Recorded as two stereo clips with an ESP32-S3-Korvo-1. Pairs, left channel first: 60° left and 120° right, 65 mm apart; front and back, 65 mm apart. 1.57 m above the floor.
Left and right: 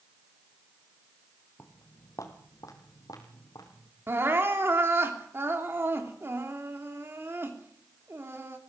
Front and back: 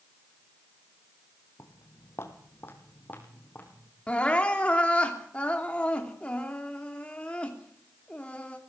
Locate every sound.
1.6 s footsteps: 15° left, 2.5 m; by 3.9 s 65° left, 5 m
4.1 s crying: 70° right, 3 m